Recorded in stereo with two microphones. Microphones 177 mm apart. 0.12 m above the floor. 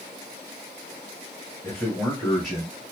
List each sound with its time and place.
1.6 s a man speaking: 10° left (ahead or behind), 1.9 m; by 2.8 s 10° right (ahead or behind), 1.7 m